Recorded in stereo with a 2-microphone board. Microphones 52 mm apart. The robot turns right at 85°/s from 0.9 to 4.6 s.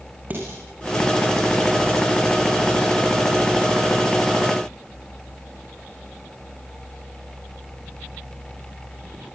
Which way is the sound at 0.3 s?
35° right (ahead or behind).